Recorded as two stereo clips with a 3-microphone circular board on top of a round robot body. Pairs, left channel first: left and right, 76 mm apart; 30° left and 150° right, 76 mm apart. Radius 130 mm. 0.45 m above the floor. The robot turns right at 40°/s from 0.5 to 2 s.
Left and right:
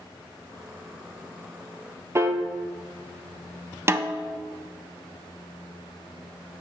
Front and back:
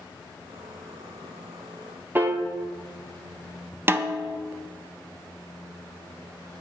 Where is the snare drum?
115° right, 0.6 m.